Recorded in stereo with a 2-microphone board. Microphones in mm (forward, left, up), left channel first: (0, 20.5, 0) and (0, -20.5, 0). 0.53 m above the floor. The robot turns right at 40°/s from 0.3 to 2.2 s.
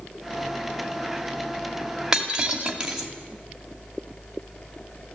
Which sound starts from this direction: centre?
Breaking glass, at 2.1 s.